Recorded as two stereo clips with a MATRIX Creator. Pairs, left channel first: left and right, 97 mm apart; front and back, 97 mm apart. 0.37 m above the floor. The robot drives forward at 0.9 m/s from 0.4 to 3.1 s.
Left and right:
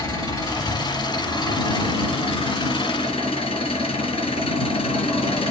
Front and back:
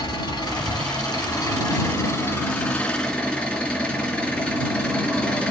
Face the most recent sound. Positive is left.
turn(degrees=85)